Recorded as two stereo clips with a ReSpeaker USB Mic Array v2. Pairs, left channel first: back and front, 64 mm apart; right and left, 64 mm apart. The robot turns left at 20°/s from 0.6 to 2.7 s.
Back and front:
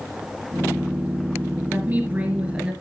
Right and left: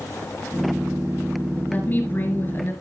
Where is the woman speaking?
45° right, 2 m; by 2.7 s 65° right, 2 m.